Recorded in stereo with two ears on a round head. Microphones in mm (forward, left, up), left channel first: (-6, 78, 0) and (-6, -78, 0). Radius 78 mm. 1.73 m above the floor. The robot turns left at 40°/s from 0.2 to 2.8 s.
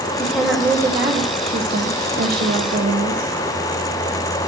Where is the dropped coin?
No dropped coin in this recording.